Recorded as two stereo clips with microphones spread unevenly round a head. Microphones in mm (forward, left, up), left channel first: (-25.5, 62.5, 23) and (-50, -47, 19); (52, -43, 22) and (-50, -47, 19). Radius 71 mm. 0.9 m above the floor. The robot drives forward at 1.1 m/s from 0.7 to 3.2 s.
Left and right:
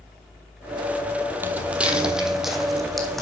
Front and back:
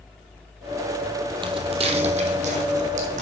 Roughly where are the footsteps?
Behind.